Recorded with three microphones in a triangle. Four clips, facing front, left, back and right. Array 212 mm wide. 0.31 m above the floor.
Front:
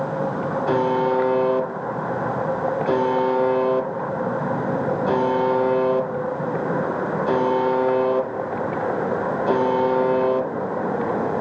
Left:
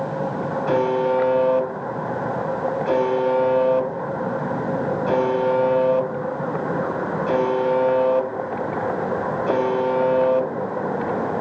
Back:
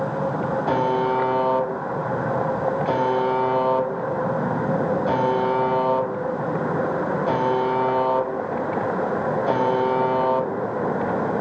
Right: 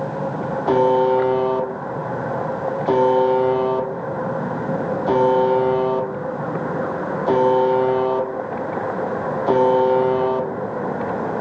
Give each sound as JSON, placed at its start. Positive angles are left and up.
{"t": 0.7, "sound": "a buzzer", "azimuth_deg": -85, "distance_m": 0.6}